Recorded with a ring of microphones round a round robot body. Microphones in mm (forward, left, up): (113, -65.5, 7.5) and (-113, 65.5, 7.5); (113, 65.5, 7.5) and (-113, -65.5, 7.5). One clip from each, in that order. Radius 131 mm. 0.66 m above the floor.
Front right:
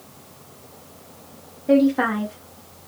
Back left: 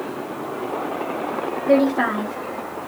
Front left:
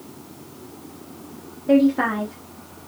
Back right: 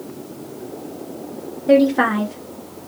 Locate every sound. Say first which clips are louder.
1.7 s a woman speaking: even, back right 4 dB; 130° right, 0.8 m